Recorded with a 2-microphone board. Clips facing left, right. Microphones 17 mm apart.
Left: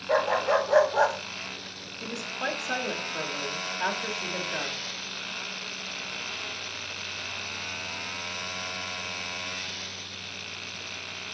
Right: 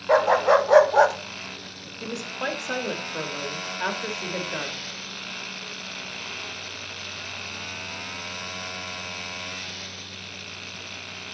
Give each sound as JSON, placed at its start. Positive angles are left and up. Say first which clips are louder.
{"t": 0.1, "sound": "a dog barking", "louder": "right 6 dB", "side_deg": -70, "distance_m": 1.0}
{"t": 2.0, "sound": "a woman speaking", "louder": "right 2 dB", "side_deg": -20, "distance_m": 1.3}